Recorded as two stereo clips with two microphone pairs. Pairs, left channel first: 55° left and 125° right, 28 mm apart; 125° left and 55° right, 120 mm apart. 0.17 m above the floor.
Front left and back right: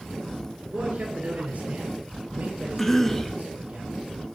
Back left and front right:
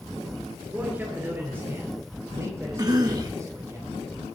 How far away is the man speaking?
About 3 m.